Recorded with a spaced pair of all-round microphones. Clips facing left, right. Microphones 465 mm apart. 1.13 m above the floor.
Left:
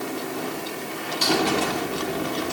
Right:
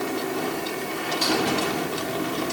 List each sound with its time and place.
Only background noise.